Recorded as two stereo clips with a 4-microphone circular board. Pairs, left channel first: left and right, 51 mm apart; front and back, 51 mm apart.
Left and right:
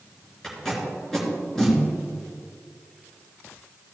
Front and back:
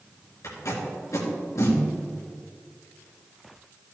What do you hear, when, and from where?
0.4 s tape being pulled: 10° left, 3 m